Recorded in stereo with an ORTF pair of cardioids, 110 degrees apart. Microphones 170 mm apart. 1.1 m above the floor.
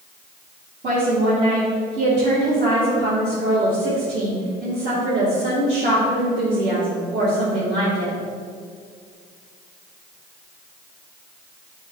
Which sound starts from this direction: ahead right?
A woman speaking, at 0.8 s.